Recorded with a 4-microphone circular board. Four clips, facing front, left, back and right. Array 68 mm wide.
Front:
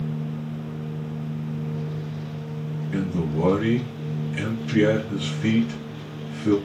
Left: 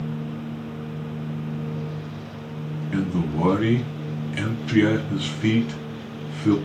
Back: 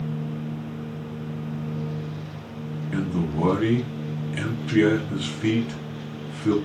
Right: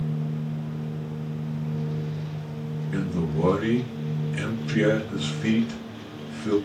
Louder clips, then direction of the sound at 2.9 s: Left 3 dB, even; 110° left.